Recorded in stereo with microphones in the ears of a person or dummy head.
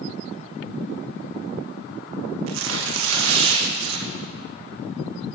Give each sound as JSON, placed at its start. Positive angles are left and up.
{"t": 2.5, "sound": "tearing paper", "side_deg": -80, "distance_m": 1.1}